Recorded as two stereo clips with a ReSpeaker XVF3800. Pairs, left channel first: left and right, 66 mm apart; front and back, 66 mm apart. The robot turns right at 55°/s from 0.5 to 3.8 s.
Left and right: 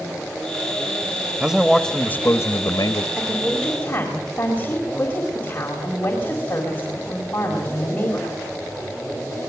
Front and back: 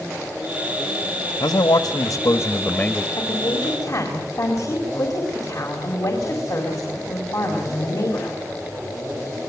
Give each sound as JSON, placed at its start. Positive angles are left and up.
{"t": 1.4, "sound": "a man speaking", "azimuth_deg": -15, "distance_m": 1.1}
{"t": 3.2, "sound": "a woman speaking", "azimuth_deg": -10, "distance_m": 4.0}